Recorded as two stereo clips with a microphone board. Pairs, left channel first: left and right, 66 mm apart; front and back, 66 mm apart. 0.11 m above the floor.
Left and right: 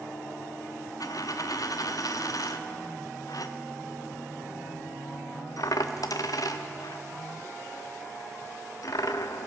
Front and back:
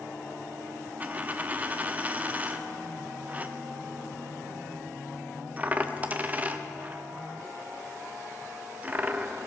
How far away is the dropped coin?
About 0.9 m.